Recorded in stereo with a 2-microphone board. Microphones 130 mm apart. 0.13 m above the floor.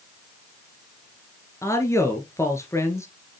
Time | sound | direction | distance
1.6 | a man speaking | 20° left (ahead or behind) | 2 m